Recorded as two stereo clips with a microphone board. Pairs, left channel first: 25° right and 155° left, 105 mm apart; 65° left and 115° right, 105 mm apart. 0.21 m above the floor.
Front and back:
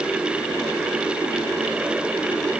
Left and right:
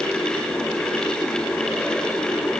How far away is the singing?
I don't hear singing.